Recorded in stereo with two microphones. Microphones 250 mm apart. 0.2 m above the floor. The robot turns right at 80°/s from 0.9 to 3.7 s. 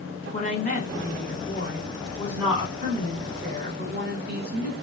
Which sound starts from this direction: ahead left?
A woman speaking, at 0.3 s.